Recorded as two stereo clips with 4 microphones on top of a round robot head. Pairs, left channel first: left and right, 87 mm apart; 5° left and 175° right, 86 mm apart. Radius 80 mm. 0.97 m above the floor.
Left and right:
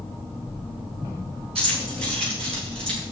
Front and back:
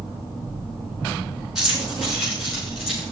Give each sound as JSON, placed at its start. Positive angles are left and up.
{"t": 1.6, "sound": "keys jangling", "azimuth_deg": -90, "distance_m": 8.0}